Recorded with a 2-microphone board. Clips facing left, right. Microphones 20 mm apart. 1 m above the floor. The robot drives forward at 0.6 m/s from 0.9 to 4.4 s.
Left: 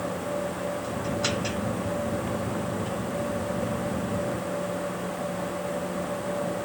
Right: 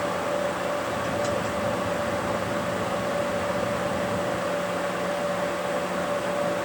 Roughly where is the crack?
I don't hear a crack.